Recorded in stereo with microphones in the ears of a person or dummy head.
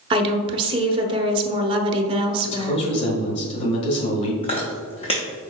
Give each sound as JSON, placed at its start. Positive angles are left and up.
{"t": 0.1, "sound": "a woman speaking", "side_deg": -30, "distance_m": 0.8}
{"t": 2.4, "sound": "a man speaking", "side_deg": 35, "distance_m": 1.4}
{"t": 4.4, "sound": "chewing", "side_deg": 25, "distance_m": 0.5}